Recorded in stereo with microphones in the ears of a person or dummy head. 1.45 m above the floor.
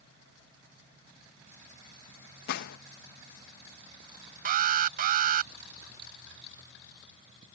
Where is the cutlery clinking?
No cutlery clinking in this recording.